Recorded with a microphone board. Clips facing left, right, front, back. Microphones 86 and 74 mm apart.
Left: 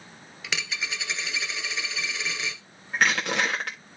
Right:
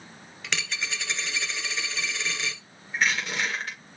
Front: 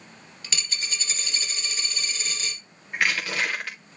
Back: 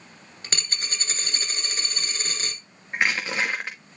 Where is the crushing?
115° left, 2.5 m.